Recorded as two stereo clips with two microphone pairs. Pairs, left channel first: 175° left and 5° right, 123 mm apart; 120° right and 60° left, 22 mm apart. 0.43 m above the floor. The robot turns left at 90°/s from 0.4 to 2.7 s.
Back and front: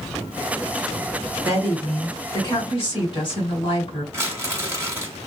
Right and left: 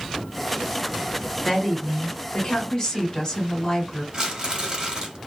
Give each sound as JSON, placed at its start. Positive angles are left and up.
{"t": 1.4, "sound": "a woman speaking", "azimuth_deg": -50, "distance_m": 1.8}
{"t": 4.1, "sound": "crumpling", "azimuth_deg": 55, "distance_m": 1.6}